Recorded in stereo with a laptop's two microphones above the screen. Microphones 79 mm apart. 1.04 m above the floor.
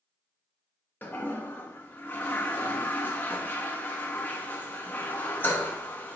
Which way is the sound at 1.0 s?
25° left (ahead or behind).